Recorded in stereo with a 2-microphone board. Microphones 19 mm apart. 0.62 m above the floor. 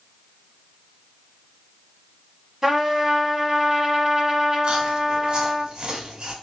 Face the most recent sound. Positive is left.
turn(degrees=-55)  # may be behind; listen again after turning